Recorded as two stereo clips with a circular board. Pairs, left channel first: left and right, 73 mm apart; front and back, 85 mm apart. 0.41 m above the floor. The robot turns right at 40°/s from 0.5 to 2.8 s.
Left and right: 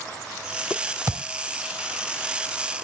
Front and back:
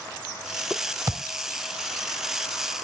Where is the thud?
130° right, 1.0 m; by 1.3 s 120° right, 1.0 m.